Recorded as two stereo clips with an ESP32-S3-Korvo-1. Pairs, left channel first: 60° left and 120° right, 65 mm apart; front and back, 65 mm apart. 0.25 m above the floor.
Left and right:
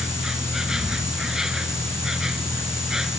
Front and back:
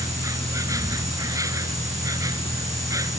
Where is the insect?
160° left.